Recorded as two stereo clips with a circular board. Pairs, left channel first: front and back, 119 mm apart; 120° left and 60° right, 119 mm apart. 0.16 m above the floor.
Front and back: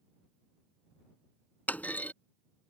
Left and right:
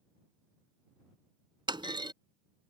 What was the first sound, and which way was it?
A clunk, 70° right.